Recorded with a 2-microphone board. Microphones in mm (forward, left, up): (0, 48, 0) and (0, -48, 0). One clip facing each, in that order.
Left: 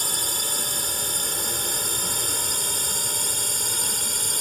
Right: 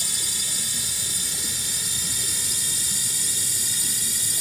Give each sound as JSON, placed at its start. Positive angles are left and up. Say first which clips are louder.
{"t": 0.0, "sound": "a drone", "louder": "left 6 dB", "side_deg": 50}